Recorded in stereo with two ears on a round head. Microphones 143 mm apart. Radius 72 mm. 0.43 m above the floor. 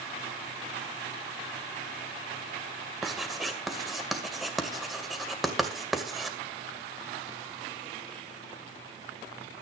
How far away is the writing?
About 2 m.